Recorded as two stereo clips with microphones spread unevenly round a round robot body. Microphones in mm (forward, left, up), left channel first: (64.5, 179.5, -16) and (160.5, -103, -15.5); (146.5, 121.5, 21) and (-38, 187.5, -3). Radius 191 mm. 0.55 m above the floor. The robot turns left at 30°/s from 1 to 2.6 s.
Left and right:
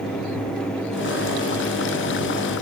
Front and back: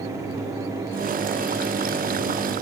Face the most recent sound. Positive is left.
No sound to turn to.